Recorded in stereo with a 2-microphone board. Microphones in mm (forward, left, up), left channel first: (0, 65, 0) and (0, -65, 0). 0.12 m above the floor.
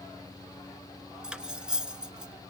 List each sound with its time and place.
1.2 s cutlery clinking: 5° right (ahead or behind), 1.0 m